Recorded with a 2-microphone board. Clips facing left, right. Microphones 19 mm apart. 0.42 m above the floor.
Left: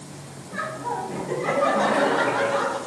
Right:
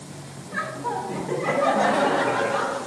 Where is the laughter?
20° right (ahead or behind), 1.0 m; by 2.8 s 15° left (ahead or behind), 1.1 m.